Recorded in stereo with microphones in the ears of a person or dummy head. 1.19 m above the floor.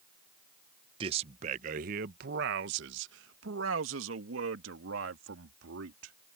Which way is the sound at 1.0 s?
30° right (ahead or behind).